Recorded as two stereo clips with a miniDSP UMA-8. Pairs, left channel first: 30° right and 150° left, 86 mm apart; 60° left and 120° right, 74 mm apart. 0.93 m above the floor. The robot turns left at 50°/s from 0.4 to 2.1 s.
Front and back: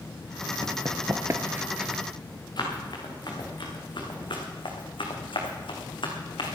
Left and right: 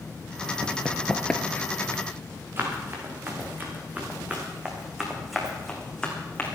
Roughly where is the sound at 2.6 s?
Ahead right.